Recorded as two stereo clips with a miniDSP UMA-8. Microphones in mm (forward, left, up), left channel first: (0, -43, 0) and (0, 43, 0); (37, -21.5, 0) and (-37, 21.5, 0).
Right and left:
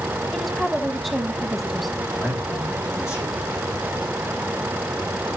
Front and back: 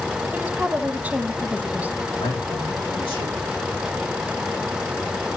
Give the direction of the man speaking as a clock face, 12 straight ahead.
1 o'clock.